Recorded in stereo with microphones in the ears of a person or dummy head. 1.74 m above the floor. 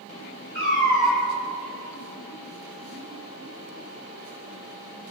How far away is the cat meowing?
About 1.6 m.